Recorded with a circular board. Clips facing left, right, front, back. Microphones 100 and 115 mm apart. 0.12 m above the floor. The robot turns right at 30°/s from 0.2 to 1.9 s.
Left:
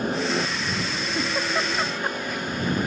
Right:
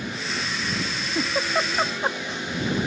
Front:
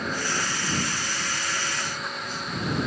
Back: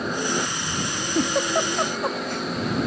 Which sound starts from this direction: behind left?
A helicopter, at 0.0 s.